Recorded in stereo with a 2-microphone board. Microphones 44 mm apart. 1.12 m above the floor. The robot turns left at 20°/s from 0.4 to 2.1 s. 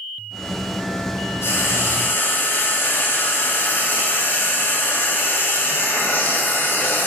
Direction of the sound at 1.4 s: 65° left (ahead or behind).